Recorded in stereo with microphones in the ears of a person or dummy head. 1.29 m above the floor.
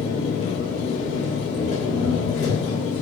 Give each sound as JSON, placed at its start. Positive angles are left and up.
{"t": 0.0, "sound": "an engine running", "side_deg": 45, "distance_m": 1.4}